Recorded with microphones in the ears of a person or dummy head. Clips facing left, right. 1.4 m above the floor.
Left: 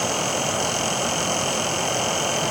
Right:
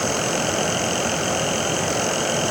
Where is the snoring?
I don't hear snoring.